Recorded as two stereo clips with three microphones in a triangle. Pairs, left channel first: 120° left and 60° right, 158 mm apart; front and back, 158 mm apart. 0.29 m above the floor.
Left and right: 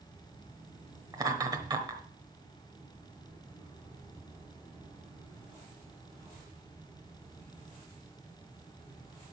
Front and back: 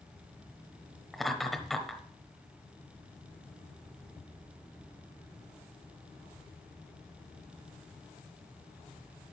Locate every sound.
1.1 s laughter: 90° right, 1.0 m